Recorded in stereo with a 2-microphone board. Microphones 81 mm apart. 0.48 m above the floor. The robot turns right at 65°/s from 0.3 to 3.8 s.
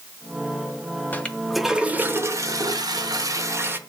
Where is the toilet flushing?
150° left, 1.1 m; by 3.8 s 35° right, 1.1 m.